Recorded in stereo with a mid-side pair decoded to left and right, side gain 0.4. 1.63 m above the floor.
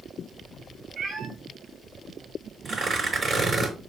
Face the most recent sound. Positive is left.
turn(degrees=-40)